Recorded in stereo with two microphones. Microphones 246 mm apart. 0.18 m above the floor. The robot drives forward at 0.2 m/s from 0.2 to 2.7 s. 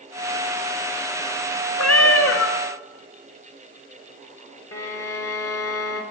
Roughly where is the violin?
Left.